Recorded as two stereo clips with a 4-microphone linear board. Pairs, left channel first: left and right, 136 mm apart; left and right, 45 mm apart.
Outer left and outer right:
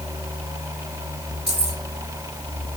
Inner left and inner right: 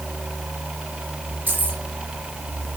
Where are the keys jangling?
50° right (ahead or behind), 4 m.